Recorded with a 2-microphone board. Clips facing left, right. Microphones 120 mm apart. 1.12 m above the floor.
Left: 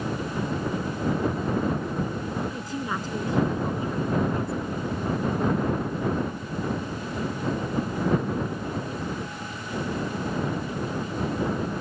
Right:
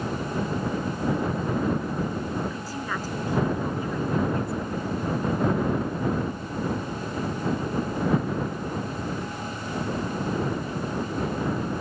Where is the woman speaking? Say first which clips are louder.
Left 1 dB; 20° left (ahead or behind); by 5.9 s 30° left (ahead or behind).